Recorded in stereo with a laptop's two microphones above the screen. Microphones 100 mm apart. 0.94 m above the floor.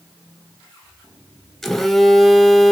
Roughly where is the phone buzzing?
Centre.